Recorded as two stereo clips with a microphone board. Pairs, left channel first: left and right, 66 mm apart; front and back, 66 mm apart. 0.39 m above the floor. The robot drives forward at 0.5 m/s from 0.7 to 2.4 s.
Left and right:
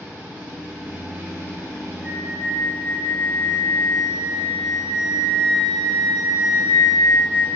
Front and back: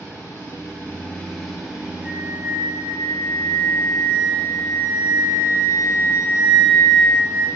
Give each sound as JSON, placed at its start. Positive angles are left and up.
{"t": 0.0, "sound": "an engine running", "azimuth_deg": -45, "distance_m": 0.9}
{"t": 2.0, "sound": "a flute", "azimuth_deg": -165, "distance_m": 1.9}